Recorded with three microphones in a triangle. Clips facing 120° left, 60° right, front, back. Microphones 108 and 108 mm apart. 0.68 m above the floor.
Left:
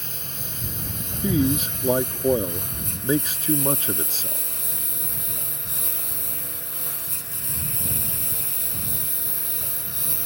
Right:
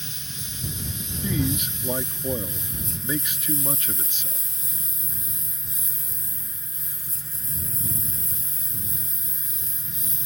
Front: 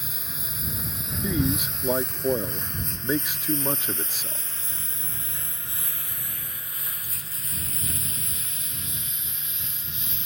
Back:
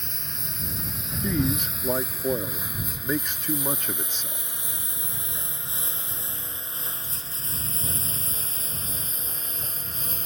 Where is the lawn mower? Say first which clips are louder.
Left 3 dB, even; 85° left; by 10.3 s 135° left.